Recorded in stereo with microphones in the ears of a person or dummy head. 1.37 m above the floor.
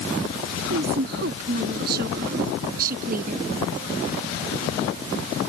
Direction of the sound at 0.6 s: 60° right (ahead or behind).